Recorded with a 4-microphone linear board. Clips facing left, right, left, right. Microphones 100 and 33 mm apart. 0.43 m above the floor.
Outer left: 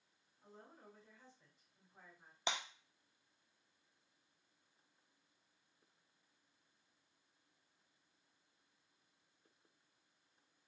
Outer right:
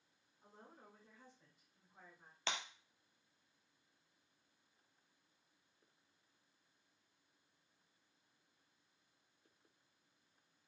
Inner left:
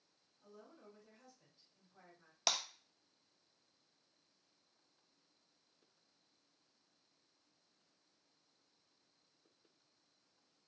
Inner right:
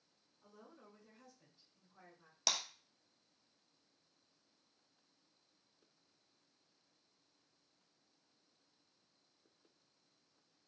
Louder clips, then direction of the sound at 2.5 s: Outer left 2 dB, inner left 1 dB; 15° left (ahead or behind).